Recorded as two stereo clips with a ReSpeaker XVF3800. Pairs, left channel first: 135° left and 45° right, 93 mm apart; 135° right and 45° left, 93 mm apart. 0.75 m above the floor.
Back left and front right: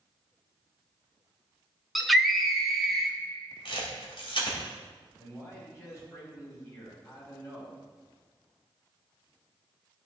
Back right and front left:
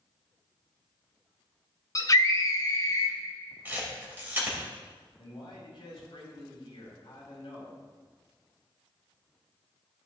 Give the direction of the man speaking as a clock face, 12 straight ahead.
6 o'clock.